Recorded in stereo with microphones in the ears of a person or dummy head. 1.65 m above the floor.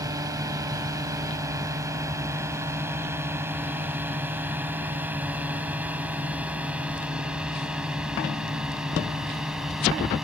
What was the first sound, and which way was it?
A drone, 15° right (ahead or behind).